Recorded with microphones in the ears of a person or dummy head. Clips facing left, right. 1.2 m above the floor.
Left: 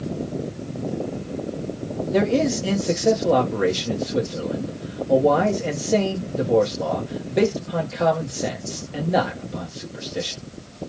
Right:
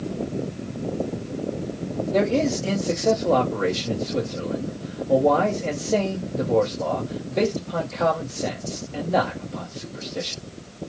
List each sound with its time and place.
2.1 s a man speaking: 15° left (ahead or behind), 0.7 m